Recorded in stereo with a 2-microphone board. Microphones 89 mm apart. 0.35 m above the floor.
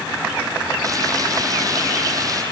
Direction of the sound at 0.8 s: 40° right (ahead or behind).